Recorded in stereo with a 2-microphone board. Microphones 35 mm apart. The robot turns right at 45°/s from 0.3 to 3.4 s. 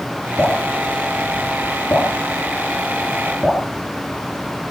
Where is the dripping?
55° left (ahead or behind), 9 m; by 3.6 s 10° right (ahead or behind), 9 m.